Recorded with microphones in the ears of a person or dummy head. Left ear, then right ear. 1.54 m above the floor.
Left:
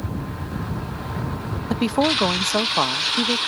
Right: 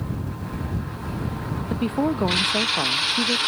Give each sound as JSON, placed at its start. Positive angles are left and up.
{"t": 1.7, "sound": "a woman speaking", "side_deg": 50}